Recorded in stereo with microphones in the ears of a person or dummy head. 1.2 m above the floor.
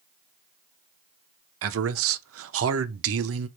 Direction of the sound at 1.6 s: 75° right (ahead or behind).